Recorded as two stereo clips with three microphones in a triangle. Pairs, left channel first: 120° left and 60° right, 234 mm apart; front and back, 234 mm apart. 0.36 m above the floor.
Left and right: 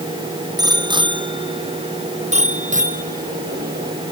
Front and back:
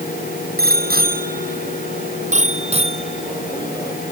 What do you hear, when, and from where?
0.6 s a bicycle bell: 135° right; by 4.0 s 105° right